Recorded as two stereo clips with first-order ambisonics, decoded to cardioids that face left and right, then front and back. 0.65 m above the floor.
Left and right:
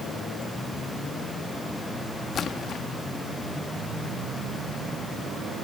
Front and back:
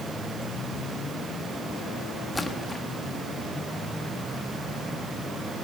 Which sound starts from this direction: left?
A splash, at 2.4 s.